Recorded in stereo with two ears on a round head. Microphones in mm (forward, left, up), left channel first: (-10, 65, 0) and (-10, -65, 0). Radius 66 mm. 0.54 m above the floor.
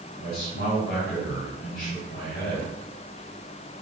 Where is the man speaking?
75° left (ahead or behind), 3 m.